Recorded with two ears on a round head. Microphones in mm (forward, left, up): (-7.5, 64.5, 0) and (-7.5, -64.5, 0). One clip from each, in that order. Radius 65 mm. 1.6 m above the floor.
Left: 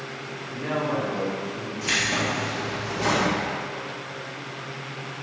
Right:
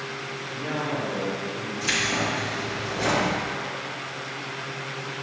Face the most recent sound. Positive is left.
turn(degrees=-15)  # may be behind; listen again after turning